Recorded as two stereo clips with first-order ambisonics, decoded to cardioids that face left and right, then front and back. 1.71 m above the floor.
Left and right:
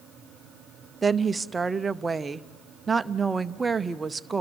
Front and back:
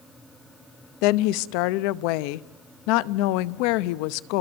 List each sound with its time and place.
1.0 s a woman speaking: 10° right, 0.7 m